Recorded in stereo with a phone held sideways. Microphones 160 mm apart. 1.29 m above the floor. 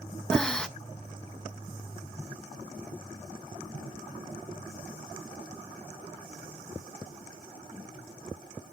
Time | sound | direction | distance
0.3 | breathing | 5° left (ahead or behind) | 0.7 m